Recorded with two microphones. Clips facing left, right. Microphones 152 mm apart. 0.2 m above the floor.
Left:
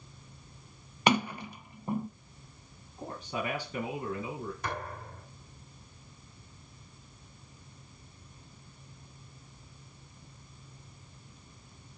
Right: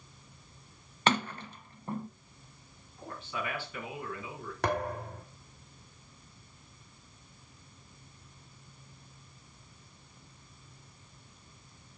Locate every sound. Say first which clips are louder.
1.1 s a sliding door: left 3 dB; 10° left (ahead or behind), 0.6 m
3.0 s a man speaking: left 3 dB; 40° left (ahead or behind), 2 m
4.6 s a thud: right 6 dB; 75° right (ahead or behind), 3.5 m